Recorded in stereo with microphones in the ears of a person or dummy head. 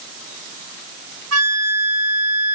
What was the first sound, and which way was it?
A flute, 75° right (ahead or behind).